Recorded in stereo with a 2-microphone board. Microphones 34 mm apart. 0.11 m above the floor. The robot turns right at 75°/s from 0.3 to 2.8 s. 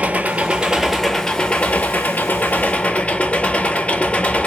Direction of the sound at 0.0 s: 50° right.